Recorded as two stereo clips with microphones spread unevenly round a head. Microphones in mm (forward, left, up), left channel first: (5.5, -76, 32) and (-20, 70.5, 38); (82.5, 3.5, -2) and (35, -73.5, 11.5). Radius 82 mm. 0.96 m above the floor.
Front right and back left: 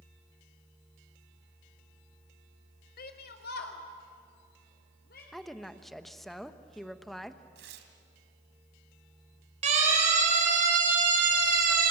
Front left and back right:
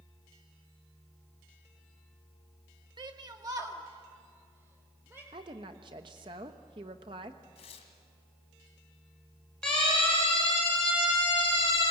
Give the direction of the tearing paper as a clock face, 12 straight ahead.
9 o'clock.